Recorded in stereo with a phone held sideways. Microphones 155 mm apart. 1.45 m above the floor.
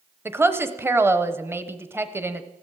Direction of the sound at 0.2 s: 15° right (ahead or behind).